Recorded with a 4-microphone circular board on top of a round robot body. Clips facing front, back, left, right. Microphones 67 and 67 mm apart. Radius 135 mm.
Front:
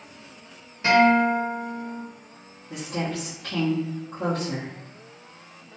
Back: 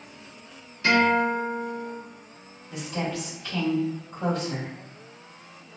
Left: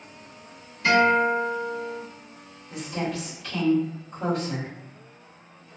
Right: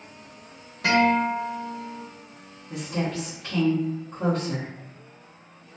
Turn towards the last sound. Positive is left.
turn(degrees=-35)